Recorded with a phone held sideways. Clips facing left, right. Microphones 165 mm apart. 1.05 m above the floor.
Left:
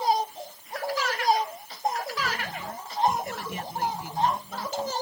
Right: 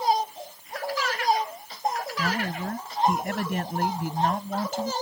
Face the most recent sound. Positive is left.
turn(degrees=-55)  # may be behind; listen again after turning